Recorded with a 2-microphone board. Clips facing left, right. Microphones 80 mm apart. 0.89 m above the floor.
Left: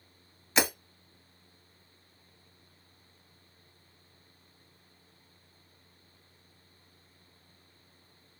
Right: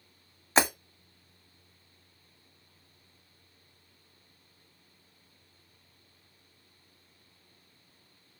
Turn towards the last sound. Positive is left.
turn(degrees=-35)  # may be behind; listen again after turning